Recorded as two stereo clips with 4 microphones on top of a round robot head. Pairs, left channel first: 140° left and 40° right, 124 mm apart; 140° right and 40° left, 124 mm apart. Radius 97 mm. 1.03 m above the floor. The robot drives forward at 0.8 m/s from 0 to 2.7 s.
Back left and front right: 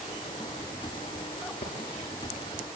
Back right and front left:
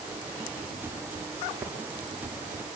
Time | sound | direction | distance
1.6 | tapping | 115° left | 7 m